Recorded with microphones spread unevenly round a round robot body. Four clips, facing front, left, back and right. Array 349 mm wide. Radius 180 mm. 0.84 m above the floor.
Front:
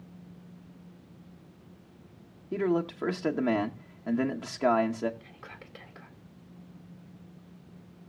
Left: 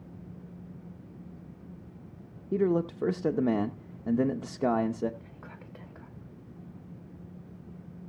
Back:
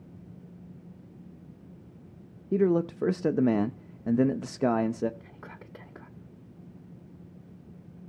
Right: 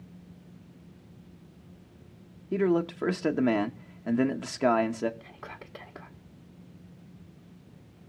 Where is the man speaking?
165° left, 0.8 m.